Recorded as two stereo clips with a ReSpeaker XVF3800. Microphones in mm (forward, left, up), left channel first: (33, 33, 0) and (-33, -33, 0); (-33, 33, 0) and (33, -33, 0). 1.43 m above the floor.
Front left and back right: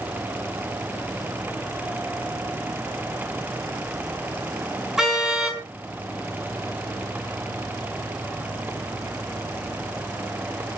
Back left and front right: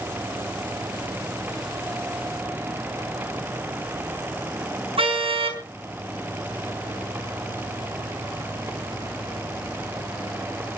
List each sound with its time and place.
5.0 s a car horn: 50° right, 6.5 m